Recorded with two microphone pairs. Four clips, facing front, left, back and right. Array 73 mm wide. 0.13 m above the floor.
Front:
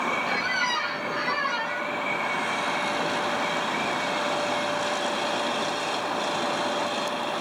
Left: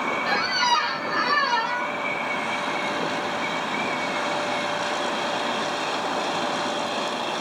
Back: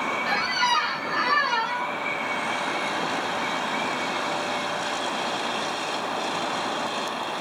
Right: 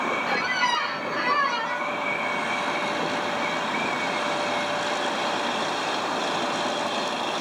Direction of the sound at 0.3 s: 130° left.